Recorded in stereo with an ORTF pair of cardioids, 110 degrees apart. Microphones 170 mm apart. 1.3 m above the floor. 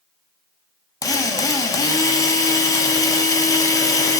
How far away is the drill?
About 1.2 m.